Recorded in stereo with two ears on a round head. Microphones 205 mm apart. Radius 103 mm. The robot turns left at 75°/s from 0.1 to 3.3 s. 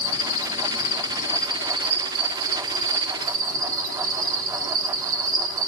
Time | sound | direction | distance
0.0 | an insect | 105° left | 1.3 m